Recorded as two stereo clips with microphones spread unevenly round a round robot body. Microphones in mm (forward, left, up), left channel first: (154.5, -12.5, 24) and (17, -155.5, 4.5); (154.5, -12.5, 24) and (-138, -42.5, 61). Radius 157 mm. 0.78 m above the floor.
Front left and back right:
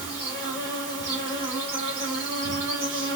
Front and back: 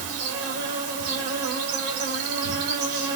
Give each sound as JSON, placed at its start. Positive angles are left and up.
{"t": 0.0, "sound": "an insect", "azimuth_deg": 150, "distance_m": 2.5}